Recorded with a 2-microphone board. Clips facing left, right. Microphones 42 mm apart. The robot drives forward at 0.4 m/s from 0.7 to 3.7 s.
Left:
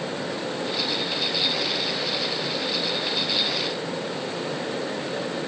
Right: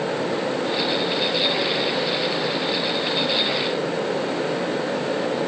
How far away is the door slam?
No door slam in this recording.